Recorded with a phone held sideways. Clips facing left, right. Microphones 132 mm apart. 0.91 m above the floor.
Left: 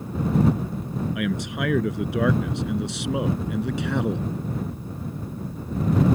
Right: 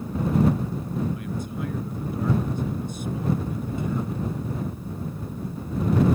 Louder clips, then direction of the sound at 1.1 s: Left 5 dB; 85° left.